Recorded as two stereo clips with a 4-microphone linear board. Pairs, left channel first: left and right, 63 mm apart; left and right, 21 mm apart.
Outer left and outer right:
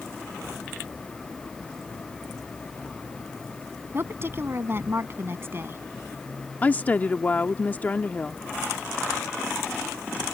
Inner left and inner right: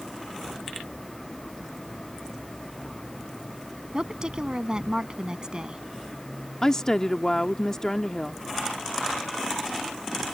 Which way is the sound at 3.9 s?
40° right (ahead or behind).